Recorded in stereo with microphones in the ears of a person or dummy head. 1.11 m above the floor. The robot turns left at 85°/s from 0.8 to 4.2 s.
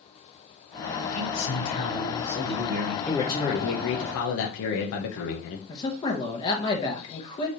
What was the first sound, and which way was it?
A man speaking, 85° left.